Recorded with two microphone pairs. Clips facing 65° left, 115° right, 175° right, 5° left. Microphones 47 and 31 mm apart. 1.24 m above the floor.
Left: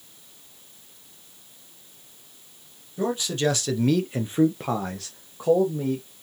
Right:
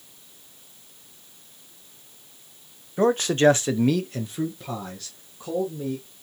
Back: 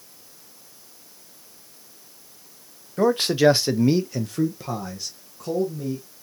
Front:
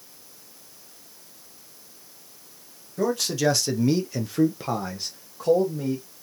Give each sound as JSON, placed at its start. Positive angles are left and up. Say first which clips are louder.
{"t": 3.0, "sound": "a man speaking", "louder": "right 6 dB, back 6 dB", "azimuth_deg": -135, "distance_m": 1.0}